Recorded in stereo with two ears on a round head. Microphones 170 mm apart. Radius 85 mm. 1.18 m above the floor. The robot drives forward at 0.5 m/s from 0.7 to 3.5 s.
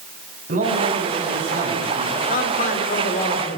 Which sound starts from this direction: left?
A man speaking, at 2.3 s.